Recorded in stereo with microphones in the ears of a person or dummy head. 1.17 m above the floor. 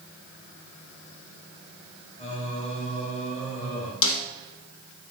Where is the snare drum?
75° left (ahead or behind), 1.4 m.